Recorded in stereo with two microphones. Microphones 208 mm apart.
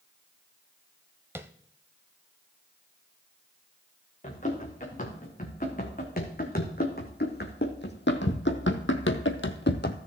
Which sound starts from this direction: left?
Running footsteps, at 4.2 s.